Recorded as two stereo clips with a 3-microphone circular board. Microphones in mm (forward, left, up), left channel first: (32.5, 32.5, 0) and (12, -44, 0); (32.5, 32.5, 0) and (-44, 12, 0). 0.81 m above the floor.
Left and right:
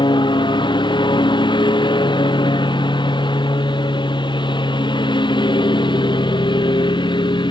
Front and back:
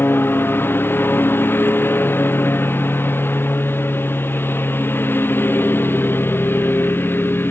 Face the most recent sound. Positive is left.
turn(degrees=75)